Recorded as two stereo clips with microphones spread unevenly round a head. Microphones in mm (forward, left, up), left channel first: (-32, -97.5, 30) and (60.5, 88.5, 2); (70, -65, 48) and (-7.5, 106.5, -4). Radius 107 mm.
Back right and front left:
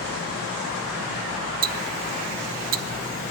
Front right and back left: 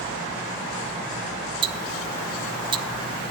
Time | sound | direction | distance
1.6 | ticking | 40° left | 0.6 m